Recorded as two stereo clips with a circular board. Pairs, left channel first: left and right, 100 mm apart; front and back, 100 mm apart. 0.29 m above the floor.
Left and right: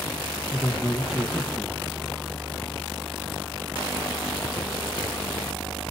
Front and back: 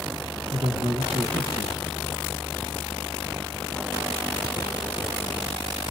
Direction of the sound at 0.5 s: 175° right.